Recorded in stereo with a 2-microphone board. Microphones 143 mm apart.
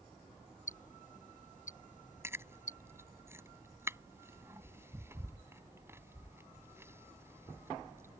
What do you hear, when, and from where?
0.7 s ticking: 60° left (ahead or behind)
2.2 s chewing: 15° right (ahead or behind)